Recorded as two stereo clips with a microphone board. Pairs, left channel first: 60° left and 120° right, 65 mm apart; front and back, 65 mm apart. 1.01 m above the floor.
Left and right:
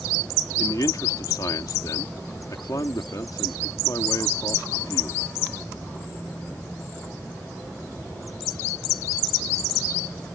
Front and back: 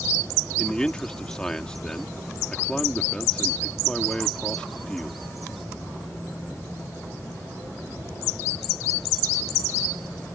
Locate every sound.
0.6 s a man speaking: 75° left